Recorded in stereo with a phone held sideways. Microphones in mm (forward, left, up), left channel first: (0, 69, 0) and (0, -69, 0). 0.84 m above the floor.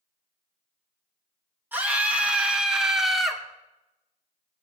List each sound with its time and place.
1.7 s a scream: 15° right (ahead or behind), 2.5 m; by 3.4 s centre (ahead or behind), 2 m